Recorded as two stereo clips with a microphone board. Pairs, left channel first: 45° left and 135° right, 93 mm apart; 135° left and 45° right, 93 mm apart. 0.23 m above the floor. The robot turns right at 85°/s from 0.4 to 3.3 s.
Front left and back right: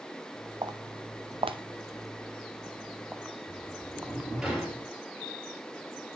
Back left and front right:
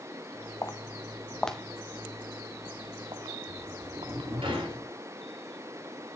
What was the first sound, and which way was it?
Footsteps, 175° right.